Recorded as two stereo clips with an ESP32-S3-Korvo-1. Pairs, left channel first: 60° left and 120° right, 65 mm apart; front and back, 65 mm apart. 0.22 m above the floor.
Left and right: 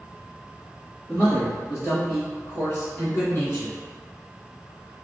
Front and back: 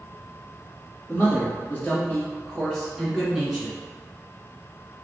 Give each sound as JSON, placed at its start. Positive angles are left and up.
{"t": 1.1, "sound": "a man speaking", "azimuth_deg": 10, "distance_m": 1.2}